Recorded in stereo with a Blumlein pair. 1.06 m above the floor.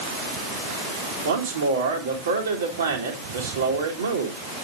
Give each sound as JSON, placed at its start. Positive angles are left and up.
{"t": 1.2, "sound": "a man speaking", "azimuth_deg": -65, "distance_m": 2.0}